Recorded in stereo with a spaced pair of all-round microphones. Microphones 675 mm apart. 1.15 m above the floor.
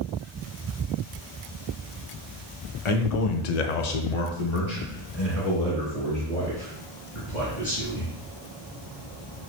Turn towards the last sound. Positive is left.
turn(degrees=20)  # may be behind; listen again after turning